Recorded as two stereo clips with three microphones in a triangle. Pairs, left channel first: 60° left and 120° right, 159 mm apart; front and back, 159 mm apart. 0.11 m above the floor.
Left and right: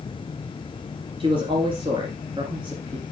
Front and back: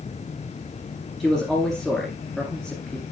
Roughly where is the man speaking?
Right.